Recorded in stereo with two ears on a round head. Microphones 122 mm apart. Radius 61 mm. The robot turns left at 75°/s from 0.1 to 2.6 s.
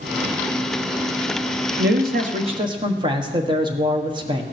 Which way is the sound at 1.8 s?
85° right.